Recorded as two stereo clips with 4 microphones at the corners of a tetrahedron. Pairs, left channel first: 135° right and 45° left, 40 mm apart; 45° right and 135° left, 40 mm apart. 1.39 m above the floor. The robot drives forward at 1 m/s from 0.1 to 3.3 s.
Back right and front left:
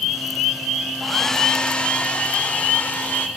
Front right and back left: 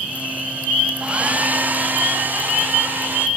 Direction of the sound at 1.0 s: 135° left.